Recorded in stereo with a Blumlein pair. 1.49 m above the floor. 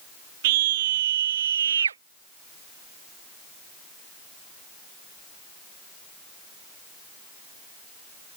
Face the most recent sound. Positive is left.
turn(degrees=-70)